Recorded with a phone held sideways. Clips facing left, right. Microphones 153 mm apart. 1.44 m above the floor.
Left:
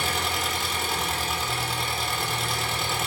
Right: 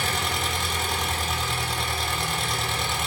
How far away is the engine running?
About 1.3 m.